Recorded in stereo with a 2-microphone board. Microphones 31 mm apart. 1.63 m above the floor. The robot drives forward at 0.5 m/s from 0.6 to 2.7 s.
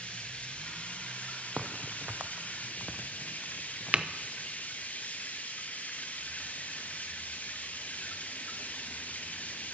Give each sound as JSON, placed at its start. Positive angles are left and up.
{"t": 0.0, "sound": "running water", "side_deg": 45, "distance_m": 1.6}
{"t": 1.6, "sound": "a crack", "side_deg": -50, "distance_m": 0.6}